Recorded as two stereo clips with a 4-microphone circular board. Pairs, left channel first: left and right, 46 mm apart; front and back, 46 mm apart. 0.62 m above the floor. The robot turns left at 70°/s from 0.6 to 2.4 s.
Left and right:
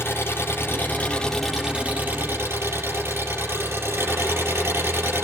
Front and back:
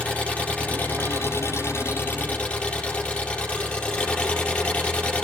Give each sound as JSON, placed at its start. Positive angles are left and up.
{"t": 0.0, "sound": "an engine running", "azimuth_deg": 60, "distance_m": 5.5}